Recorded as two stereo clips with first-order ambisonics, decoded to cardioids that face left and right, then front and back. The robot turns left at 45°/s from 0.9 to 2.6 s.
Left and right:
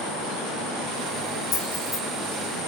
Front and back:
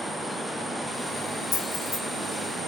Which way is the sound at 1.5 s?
55° left.